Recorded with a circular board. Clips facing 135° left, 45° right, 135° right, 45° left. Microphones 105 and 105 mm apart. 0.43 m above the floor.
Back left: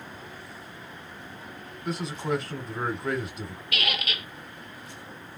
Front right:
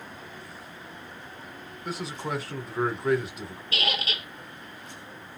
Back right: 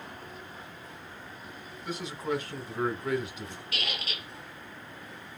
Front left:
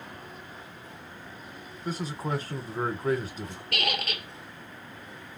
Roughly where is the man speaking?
Ahead left.